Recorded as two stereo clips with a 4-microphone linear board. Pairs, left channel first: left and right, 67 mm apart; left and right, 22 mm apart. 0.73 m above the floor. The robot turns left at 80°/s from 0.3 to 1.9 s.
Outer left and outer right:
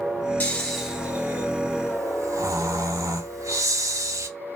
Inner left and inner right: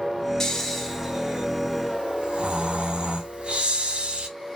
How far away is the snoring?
About 0.8 m.